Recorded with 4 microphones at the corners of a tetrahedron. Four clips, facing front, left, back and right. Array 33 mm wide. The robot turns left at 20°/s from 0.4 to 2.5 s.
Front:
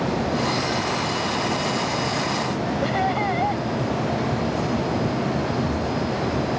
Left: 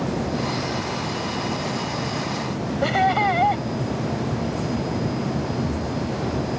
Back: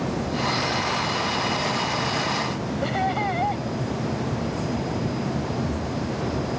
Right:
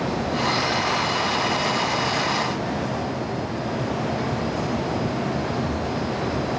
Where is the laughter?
85° left.